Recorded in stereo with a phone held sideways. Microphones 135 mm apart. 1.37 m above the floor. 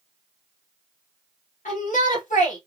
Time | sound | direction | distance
1.6 | a shout | 70° left (ahead or behind) | 1.7 m